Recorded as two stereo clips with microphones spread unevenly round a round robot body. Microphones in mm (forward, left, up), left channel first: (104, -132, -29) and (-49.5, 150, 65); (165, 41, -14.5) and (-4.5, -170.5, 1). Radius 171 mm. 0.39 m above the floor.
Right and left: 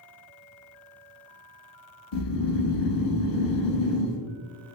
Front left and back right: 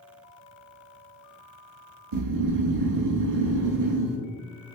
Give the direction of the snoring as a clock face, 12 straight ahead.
3 o'clock.